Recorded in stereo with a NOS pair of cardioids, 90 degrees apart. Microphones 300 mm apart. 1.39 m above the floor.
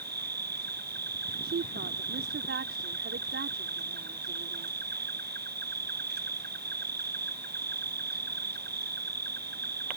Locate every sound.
0.0 s an insect: 35° right
1.4 s a woman speaking: 45° right